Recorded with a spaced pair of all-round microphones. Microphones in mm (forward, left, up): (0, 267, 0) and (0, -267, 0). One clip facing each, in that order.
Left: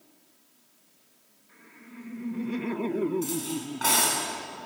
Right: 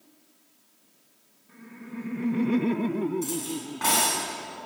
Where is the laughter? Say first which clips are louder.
Right 9 dB; 65° right (ahead or behind), 1.5 m; by 4.2 s 25° left (ahead or behind), 1.6 m.